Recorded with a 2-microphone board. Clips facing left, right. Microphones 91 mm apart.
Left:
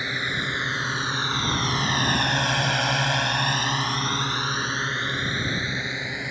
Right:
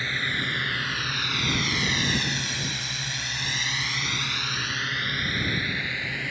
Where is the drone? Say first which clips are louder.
Left 1 dB; 20° left (ahead or behind).